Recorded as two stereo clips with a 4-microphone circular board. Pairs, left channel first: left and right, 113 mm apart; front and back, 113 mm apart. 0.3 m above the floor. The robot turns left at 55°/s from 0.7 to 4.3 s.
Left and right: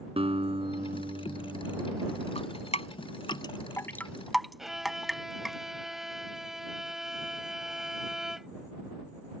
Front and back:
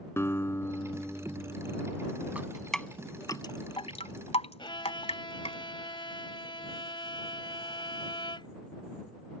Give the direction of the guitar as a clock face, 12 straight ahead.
2 o'clock.